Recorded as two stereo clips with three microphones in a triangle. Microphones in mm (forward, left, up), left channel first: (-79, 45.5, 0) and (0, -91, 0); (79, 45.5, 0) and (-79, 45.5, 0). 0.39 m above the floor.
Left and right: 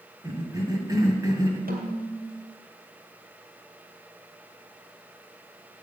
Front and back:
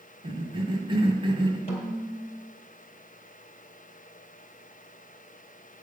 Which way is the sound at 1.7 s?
45° right.